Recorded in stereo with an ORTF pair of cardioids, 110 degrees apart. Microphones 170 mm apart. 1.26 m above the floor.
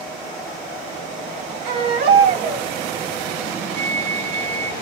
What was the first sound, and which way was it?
A baby crying, 70° right.